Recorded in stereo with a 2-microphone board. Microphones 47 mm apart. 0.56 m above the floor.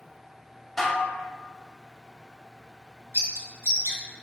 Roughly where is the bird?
Right.